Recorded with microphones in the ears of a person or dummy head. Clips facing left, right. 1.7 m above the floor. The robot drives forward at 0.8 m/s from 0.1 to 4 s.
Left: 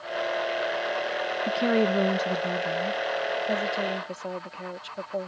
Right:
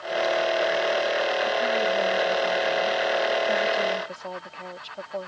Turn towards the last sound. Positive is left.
turn(degrees=20)  # may be behind; listen again after turning